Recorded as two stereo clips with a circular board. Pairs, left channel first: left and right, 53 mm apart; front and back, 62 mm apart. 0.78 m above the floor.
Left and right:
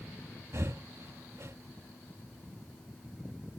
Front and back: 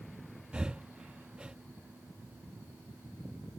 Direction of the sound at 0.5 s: 110° right.